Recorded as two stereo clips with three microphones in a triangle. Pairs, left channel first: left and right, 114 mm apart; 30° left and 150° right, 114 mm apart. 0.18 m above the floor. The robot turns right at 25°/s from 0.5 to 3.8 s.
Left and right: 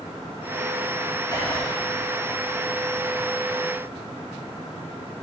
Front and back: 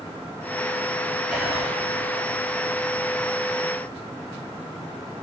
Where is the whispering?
130° left, 2 m; by 1.7 s 140° left, 2 m.